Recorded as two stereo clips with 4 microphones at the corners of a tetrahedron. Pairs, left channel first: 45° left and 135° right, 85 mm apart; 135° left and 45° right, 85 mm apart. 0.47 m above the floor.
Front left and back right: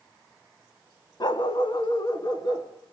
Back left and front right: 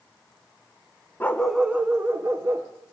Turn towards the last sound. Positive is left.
turn(degrees=10)